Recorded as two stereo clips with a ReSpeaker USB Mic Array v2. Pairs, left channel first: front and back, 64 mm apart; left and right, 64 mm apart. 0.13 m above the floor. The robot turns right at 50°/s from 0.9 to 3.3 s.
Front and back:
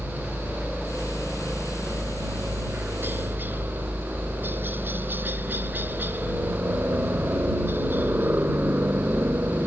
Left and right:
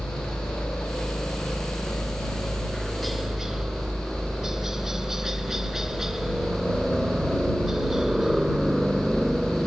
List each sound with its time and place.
0.0 s a helicopter: 75° left; by 9.7 s 165° right